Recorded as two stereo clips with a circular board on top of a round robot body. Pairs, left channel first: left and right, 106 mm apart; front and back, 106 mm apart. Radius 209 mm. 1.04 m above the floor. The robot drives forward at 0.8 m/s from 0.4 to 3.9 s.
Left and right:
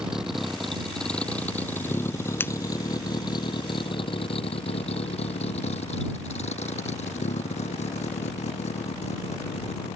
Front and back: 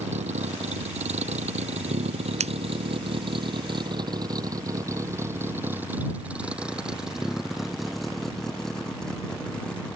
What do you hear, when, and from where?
0.0 s a vehicle: 175° right; by 10.0 s 80° left
2.4 s scissors: 160° left